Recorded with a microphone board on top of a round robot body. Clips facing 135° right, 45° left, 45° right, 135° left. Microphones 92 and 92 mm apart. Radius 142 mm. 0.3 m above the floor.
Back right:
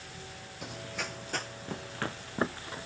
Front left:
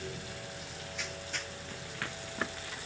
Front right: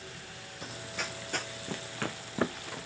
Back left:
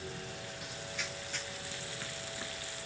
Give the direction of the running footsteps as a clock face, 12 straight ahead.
3 o'clock.